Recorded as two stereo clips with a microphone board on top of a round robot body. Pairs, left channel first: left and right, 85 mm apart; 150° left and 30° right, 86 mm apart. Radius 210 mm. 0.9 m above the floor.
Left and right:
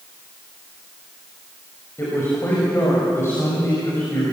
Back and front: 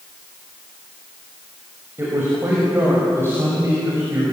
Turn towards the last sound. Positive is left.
turn(degrees=30)